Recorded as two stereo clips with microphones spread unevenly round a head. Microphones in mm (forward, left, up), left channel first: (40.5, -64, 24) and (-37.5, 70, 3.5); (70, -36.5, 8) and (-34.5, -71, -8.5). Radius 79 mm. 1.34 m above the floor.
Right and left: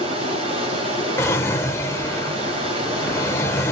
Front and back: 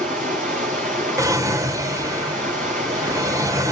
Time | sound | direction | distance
0.0 | running water | straight behind | 4.5 m
1.2 | a drawer | 110° right | 1.2 m